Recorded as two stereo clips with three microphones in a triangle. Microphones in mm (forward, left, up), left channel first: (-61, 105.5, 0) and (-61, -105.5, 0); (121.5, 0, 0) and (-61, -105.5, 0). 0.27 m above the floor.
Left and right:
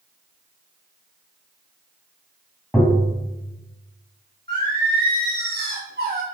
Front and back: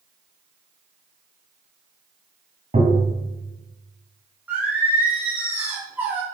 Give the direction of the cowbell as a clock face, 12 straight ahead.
I don't hear a cowbell.